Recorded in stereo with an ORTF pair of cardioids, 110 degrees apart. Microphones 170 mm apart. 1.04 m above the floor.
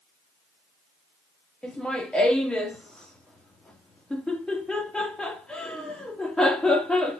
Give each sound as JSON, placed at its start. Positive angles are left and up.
{"t": 1.6, "sound": "laughter", "azimuth_deg": 5, "distance_m": 1.6}